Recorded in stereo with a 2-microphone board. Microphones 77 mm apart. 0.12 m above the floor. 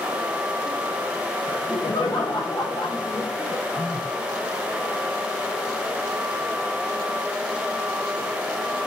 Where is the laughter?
80° left, 8 m.